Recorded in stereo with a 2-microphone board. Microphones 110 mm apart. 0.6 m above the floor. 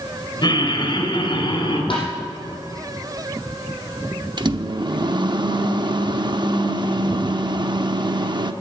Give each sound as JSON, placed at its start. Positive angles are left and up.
{"t": 0.4, "sound": "laughter", "side_deg": 45, "distance_m": 3.0}
{"t": 1.9, "sound": "tapping", "side_deg": 55, "distance_m": 5.5}
{"t": 4.4, "sound": "a microwave", "side_deg": -45, "distance_m": 0.7}